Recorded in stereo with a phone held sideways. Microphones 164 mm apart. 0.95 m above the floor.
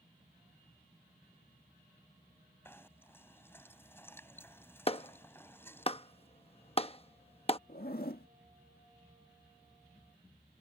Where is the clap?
35° left (ahead or behind).